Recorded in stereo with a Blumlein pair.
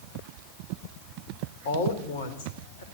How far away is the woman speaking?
About 5 m.